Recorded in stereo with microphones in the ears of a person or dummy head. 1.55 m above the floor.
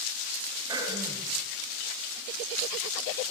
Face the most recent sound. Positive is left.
turn(degrees=-20)  # may be behind; listen again after turning